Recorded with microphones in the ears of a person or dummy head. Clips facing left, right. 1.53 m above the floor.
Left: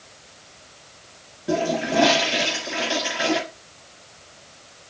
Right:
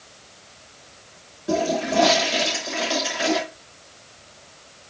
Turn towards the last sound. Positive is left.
turn(degrees=5)  # may be behind; listen again after turning